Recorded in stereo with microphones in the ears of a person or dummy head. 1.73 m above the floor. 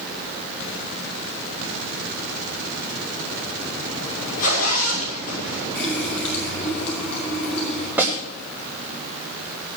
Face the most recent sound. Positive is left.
turn(degrees=-10)  # may be behind; listen again after turning